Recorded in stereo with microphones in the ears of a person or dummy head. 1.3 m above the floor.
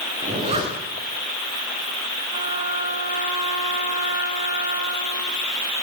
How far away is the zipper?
About 9.5 m.